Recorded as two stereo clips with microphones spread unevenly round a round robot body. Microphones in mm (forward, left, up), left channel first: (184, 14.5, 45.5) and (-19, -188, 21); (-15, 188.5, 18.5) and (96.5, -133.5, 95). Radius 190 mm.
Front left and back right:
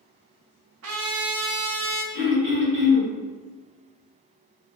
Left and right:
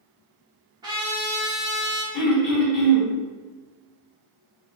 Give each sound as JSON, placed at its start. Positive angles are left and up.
{"t": 0.8, "sound": "a trumpet", "azimuth_deg": -155, "distance_m": 0.5}
{"t": 2.1, "sound": "throat clearing", "azimuth_deg": 65, "distance_m": 1.4}